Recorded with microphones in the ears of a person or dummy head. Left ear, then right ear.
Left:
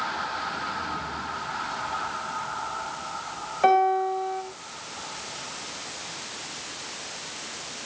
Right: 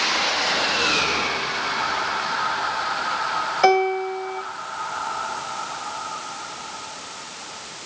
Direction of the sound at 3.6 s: 85° right.